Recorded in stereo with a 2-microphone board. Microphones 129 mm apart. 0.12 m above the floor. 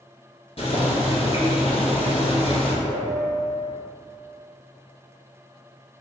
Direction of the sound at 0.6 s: 45° left (ahead or behind).